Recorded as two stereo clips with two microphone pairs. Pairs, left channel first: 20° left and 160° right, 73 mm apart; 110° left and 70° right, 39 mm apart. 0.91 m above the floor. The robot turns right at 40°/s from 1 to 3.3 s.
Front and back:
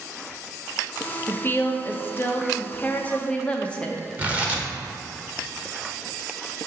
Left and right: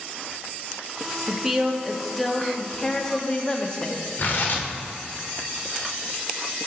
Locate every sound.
1.3 s a woman speaking: 5° right, 0.7 m; by 4.1 s 75° left, 0.7 m
4.2 s tearing paper: 130° left, 1.2 m